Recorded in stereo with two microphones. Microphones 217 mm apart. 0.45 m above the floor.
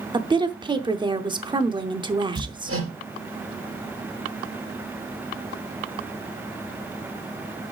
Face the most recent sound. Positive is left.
turn(degrees=-75)  # may be behind; listen again after turning